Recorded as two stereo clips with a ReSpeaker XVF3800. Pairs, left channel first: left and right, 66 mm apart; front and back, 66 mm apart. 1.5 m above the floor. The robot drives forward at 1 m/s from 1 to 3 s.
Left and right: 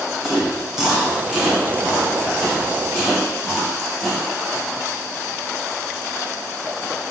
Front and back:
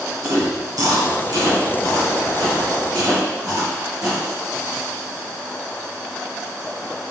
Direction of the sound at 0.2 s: 165° right.